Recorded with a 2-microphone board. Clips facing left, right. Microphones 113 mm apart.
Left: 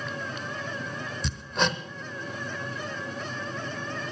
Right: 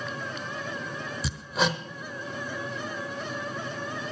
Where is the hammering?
5° right (ahead or behind), 0.9 m.